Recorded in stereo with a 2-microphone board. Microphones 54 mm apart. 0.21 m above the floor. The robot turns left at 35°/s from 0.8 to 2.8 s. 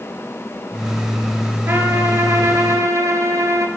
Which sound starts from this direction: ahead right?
A trumpet, at 1.7 s.